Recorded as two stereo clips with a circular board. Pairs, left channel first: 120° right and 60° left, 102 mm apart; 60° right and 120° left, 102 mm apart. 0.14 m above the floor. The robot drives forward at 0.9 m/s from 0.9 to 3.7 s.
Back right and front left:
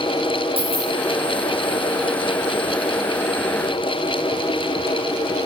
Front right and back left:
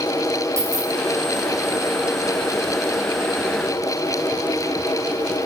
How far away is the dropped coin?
About 2.5 m.